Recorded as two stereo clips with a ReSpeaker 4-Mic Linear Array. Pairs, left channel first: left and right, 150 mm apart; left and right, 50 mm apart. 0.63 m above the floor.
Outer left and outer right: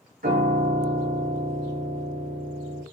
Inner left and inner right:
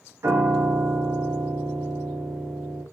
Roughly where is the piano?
Right.